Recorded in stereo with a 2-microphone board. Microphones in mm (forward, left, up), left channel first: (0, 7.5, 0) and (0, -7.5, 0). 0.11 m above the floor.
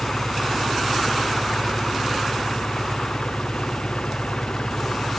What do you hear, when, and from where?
0.0 s an engine running: 80° left